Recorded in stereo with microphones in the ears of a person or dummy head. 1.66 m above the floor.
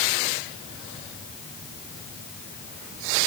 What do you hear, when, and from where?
Only background noise.